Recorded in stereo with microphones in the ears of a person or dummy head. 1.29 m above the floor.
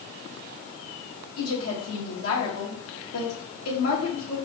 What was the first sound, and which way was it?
A woman speaking, 85° left.